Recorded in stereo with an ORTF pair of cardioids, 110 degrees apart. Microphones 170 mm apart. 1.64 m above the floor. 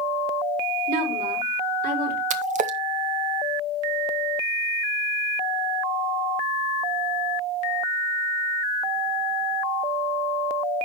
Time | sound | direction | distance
0.9 | a woman speaking | 70° right | 6.5 m
2.3 | a splash | 50° right | 1.5 m